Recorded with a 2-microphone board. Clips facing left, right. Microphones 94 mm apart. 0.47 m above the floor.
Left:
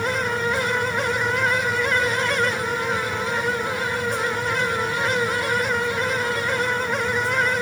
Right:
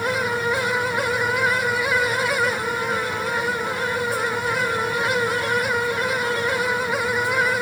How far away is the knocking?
I don't hear knocking.